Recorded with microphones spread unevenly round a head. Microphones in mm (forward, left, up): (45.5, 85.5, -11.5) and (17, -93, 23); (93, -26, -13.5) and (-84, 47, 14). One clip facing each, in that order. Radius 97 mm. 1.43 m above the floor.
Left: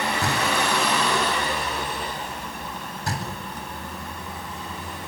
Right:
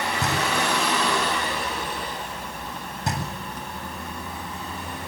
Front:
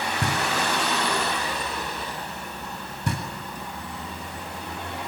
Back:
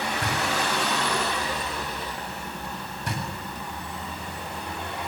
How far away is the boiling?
No boiling in this recording.